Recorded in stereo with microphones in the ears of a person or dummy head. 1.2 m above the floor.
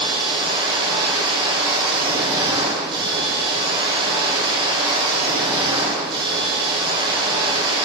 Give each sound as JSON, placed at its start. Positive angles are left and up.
{"t": 0.0, "sound": "a machine running", "side_deg": -20, "distance_m": 4.0}